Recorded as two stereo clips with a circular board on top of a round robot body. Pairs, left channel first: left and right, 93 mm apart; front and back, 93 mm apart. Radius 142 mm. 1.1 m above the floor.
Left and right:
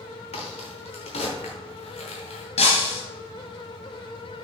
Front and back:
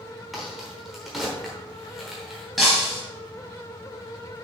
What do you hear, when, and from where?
0.3 s a crack: 90° left, 1.0 m
2.6 s breaking glass: 90° left, 1.2 m